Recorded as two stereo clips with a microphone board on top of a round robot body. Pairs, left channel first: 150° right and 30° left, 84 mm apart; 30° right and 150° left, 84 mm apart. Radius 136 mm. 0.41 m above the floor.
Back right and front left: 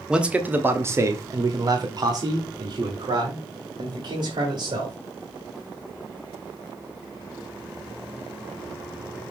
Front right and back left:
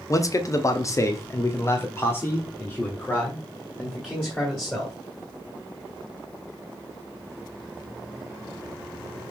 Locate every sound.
0.1 s a man speaking: 45° right, 1.1 m; by 4.9 s 50° left, 2.5 m